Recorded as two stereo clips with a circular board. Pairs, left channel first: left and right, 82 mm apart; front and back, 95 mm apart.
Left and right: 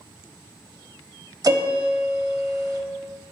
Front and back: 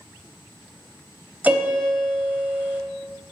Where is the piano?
110° right, 0.9 m.